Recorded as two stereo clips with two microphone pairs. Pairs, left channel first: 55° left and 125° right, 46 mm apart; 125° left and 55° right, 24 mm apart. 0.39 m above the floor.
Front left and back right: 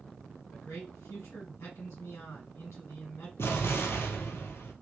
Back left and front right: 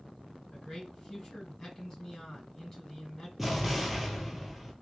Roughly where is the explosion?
Ahead left.